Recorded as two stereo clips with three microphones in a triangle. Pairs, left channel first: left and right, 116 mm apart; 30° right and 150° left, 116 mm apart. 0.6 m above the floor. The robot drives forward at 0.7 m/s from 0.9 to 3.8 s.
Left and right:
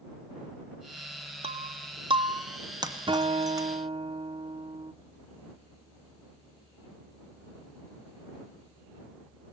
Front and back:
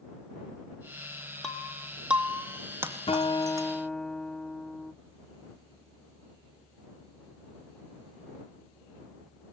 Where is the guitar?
50° right, 0.6 m; by 4.9 s 115° right, 0.5 m.